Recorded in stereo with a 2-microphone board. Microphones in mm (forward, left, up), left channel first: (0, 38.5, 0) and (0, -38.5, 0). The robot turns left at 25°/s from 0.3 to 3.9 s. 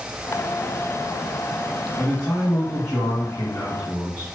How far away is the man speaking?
About 1.4 m.